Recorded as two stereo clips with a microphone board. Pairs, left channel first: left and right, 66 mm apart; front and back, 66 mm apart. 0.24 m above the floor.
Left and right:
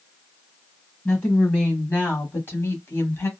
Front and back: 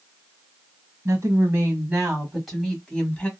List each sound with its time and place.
1.1 s a woman speaking: 155° left, 1.4 m; by 3.3 s 60° left, 1.3 m